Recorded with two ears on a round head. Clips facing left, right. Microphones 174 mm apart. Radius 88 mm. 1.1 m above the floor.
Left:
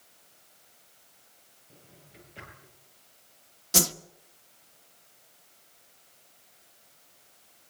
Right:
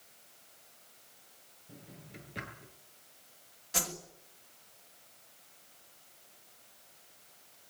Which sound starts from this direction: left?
A whoosh, at 3.7 s.